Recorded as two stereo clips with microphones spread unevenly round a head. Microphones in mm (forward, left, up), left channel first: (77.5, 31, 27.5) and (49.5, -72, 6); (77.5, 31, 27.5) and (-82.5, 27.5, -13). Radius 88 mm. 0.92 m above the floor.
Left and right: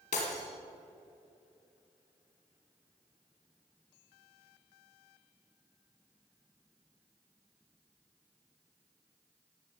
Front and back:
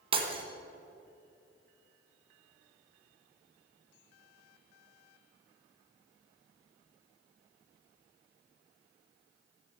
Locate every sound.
0.1 s breaking glass: 120° left, 2.5 m